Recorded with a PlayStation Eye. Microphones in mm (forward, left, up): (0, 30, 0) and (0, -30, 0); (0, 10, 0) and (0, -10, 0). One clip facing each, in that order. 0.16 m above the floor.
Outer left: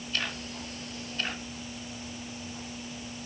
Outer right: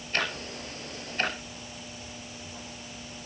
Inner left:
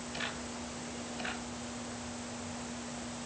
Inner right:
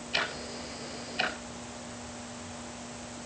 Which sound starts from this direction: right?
Ticking, at 0.1 s.